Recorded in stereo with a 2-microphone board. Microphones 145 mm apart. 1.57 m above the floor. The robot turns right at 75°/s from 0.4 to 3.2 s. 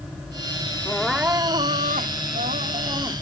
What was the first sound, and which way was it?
Crying, 165° left.